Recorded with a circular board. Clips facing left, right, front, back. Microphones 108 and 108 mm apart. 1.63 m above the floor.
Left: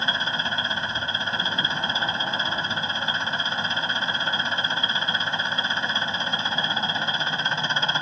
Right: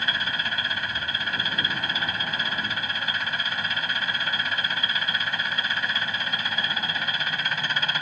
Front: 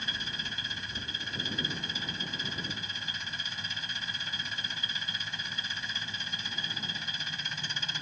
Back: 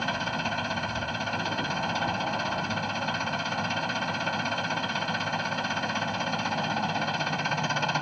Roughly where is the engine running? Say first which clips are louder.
Left 2 dB, back 12 dB; behind left.